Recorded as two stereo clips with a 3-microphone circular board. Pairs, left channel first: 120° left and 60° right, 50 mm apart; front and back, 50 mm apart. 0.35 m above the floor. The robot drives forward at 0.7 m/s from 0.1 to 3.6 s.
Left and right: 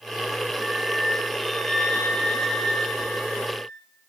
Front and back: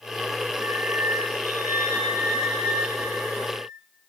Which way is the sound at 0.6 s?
140° right.